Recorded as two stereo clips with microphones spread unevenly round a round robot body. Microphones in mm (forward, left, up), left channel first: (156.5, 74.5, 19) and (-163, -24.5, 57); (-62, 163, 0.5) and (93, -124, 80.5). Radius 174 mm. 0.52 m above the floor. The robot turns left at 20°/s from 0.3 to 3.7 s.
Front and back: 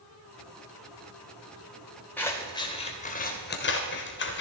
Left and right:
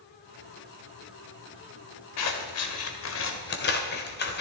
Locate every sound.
2.2 s scissors: 100° left, 1.8 m; by 4.4 s 70° left, 1.8 m